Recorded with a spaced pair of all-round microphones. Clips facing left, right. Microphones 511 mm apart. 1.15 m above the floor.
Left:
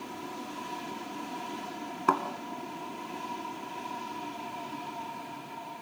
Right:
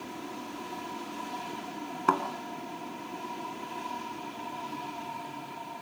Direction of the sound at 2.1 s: Centre (ahead or behind).